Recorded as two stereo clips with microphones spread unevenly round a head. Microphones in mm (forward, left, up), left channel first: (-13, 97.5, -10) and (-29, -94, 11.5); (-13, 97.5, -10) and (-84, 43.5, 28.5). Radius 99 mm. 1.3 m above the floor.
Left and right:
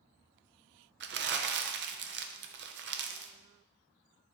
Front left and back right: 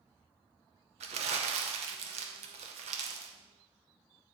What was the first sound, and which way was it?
Crumpling, 130° right.